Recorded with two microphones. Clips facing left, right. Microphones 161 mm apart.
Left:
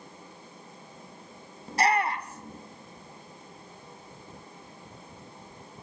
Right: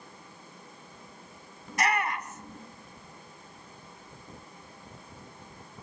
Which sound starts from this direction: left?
A shout, at 1.7 s.